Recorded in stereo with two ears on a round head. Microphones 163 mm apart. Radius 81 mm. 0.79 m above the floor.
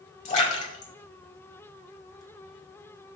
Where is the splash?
40° left (ahead or behind), 1.9 m.